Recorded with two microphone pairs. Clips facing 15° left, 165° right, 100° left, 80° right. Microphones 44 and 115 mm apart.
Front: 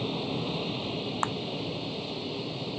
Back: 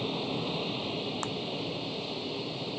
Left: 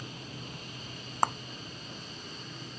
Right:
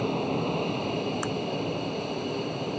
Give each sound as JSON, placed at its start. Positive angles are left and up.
{"t": 0.0, "sound": "an aircraft", "azimuth_deg": -75}
{"t": 1.2, "sound": "a clap", "azimuth_deg": 70}